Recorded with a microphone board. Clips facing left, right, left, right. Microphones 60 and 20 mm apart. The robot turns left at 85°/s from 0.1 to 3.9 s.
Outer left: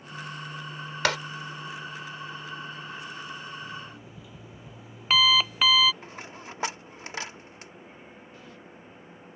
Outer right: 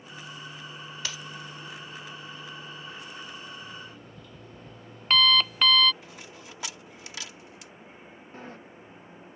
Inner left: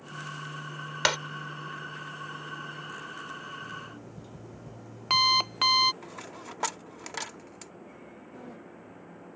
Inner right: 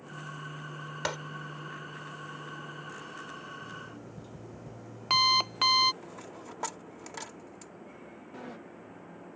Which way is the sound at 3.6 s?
5° right (ahead or behind).